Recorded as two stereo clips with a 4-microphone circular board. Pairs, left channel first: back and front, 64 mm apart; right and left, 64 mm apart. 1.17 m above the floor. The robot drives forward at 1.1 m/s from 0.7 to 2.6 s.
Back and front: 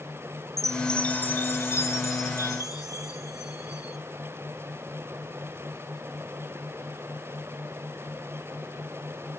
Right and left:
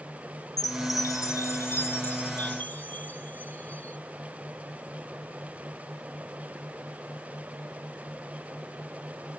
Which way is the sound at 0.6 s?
95° right.